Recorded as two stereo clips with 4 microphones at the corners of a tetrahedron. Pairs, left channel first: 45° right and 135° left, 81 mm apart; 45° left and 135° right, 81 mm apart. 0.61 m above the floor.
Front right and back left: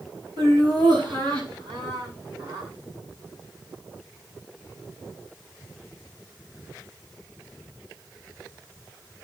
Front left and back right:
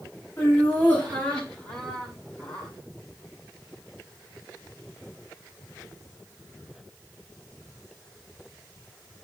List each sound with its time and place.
0.4 s laughter: 110° left, 5 m; by 2.7 s 120° left, 7.5 m